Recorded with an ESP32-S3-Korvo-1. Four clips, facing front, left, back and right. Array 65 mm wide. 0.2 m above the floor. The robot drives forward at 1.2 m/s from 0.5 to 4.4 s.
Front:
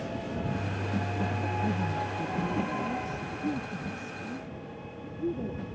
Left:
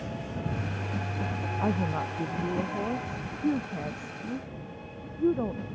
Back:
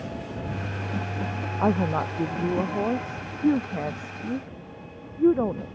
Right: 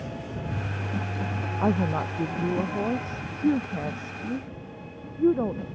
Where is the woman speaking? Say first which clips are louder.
Right 5 dB, back 12 dB; 170° right.